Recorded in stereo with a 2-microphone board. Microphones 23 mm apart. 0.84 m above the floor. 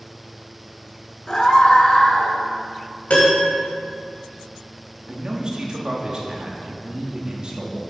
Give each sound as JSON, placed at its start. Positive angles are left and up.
{"t": 1.3, "sound": "a scream", "side_deg": 35, "distance_m": 1.1}
{"t": 3.1, "sound": "a piano", "side_deg": 80, "distance_m": 1.9}
{"t": 5.1, "sound": "a man speaking", "side_deg": -35, "distance_m": 1.3}